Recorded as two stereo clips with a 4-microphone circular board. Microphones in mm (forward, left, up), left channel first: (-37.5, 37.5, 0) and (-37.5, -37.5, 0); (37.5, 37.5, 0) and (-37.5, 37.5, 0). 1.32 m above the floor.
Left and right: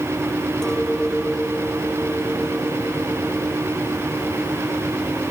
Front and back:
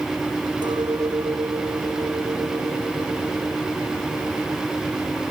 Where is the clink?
175° left.